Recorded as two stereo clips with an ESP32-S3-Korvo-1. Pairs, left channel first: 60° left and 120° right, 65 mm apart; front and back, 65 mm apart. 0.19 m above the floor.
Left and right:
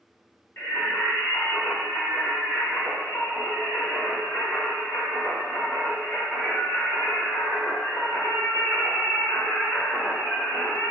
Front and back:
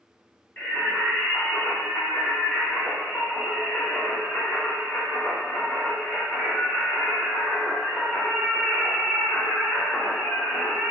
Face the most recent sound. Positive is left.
turn(degrees=55)